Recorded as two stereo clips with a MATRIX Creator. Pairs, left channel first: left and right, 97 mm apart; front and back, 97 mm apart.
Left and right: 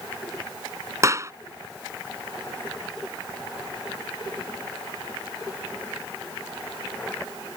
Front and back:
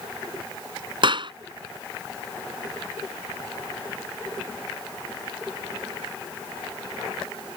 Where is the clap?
150° right.